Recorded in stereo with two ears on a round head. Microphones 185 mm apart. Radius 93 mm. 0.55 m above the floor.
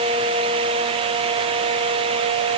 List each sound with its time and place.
Only background noise.